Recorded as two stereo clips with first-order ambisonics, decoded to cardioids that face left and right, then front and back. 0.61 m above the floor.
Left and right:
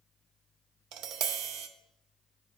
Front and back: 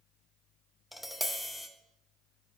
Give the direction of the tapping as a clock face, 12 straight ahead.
3 o'clock.